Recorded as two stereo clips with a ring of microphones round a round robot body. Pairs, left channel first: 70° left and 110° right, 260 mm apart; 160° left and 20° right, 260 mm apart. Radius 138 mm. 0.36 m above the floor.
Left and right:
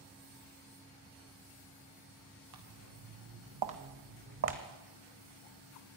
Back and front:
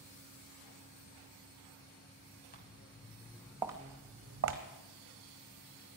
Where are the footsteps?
140° right, 2.5 m; by 4.6 s 65° right, 1.7 m.